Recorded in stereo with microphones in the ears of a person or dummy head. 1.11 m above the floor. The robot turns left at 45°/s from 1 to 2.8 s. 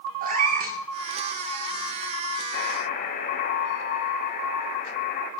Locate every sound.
0.2 s a cat meowing: 50° right (ahead or behind), 1.5 m
2.5 s a buzzer: 60° left (ahead or behind), 2 m; by 5.3 s 50° left (ahead or behind), 2 m